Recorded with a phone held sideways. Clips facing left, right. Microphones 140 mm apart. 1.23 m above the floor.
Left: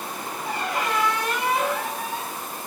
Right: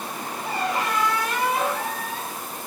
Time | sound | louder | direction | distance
0.5 | a squeak | right 1 dB | centre (ahead or behind) | 2.0 m